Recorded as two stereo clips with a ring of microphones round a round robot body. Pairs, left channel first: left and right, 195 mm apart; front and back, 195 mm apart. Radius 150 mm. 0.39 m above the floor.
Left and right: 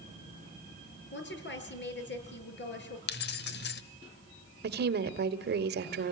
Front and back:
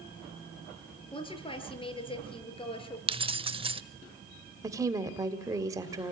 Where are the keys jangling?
120° left, 1.2 m.